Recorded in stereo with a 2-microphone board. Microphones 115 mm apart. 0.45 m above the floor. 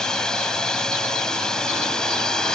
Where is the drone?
5° left (ahead or behind).